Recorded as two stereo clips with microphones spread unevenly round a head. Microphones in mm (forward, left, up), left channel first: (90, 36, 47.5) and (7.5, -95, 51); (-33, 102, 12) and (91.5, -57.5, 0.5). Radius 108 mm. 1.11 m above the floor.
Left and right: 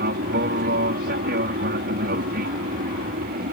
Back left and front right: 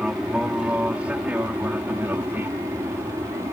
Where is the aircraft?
140° right; by 3.5 s 130° right.